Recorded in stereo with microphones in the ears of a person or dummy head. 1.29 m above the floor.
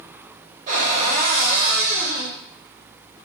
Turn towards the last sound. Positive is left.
turn(degrees=-45)  # may be behind; listen again after turning